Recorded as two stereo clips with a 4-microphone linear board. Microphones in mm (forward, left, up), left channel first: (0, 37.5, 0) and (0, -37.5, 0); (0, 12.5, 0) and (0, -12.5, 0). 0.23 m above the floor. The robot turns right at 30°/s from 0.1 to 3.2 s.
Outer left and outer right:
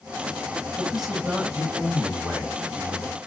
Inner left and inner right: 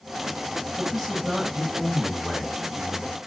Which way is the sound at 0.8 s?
5° right (ahead or behind).